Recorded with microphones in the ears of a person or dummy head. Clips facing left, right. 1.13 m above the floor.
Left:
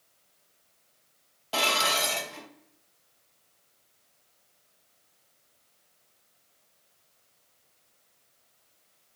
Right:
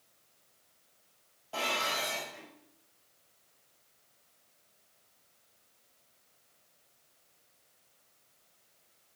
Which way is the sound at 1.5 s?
75° left (ahead or behind).